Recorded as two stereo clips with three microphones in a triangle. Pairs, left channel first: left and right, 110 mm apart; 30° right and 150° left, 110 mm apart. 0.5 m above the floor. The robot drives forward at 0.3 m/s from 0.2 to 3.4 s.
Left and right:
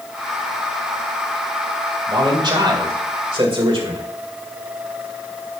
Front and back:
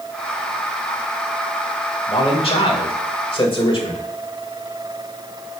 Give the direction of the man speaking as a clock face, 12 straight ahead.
2 o'clock.